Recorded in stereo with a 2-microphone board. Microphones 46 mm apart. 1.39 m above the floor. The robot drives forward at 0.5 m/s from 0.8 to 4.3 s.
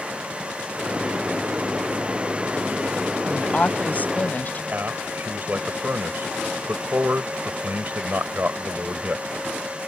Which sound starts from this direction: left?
A woman speaking, at 3.3 s.